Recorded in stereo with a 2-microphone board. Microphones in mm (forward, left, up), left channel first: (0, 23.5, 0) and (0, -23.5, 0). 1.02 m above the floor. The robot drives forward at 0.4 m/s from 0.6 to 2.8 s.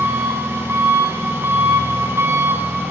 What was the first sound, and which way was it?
An engine running, 75° right (ahead or behind).